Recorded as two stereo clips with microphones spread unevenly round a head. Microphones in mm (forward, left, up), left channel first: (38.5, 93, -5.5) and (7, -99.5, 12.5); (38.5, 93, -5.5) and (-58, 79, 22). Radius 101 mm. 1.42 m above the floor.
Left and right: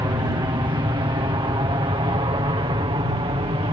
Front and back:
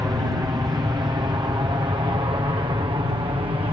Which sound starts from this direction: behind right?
An aircraft, at 0.0 s.